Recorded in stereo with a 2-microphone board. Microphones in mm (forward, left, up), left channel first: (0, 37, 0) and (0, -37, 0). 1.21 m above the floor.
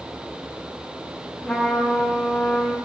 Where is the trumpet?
Centre (ahead or behind), 1.0 m.